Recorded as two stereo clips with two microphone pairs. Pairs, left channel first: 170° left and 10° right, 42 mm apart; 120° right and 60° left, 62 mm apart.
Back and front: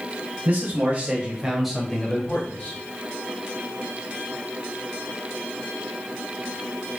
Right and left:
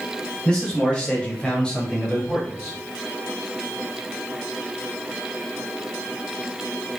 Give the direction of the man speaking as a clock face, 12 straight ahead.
2 o'clock.